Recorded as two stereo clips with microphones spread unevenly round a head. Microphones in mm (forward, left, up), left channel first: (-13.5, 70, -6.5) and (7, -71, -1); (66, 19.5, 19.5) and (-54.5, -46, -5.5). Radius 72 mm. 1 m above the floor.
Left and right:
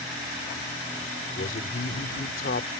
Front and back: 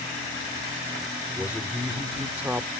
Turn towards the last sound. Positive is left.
turn(degrees=125)